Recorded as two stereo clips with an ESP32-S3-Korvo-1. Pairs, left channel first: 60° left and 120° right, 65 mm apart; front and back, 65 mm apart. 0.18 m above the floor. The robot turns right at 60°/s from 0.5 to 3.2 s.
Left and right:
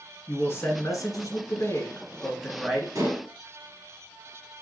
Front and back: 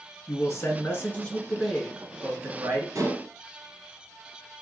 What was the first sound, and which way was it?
A man speaking, 20° left.